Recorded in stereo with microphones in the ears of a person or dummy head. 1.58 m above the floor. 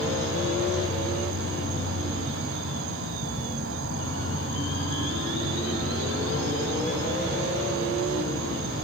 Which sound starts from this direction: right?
An insect, at 0.0 s.